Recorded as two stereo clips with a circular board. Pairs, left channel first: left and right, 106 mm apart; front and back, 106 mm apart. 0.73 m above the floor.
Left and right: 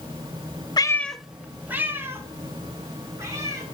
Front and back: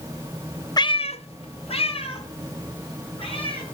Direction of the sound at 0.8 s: 45° left.